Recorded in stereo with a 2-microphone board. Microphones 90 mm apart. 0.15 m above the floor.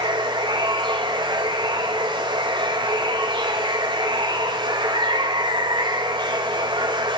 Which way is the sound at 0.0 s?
60° right (ahead or behind).